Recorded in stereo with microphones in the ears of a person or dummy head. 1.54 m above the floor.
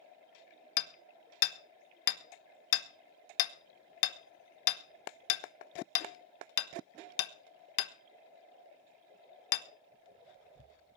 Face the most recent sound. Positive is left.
turn(degrees=70)  # may be behind; listen again after turning